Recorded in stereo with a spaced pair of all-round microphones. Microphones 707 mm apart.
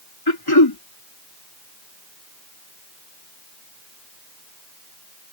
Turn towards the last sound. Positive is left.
turn(degrees=35)  # may be behind; listen again after turning